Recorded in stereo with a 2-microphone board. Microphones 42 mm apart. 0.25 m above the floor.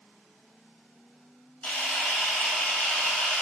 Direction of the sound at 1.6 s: 35° left (ahead or behind).